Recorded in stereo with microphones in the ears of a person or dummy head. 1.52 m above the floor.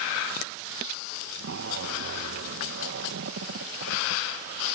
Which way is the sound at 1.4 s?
70° right (ahead or behind).